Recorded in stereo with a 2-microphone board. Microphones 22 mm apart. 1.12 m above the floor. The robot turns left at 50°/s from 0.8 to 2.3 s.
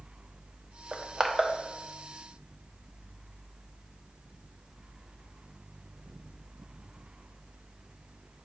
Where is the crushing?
50° right (ahead or behind), 1.1 m; by 1.5 s 20° right (ahead or behind), 1.1 m.